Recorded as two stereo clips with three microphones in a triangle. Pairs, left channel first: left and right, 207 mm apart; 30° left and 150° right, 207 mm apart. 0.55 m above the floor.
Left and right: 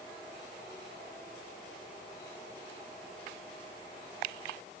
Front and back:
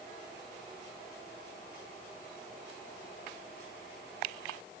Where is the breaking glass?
No breaking glass in this recording.